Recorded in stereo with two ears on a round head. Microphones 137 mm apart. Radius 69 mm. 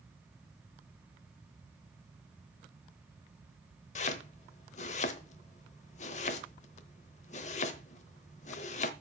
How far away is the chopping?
About 0.9 m.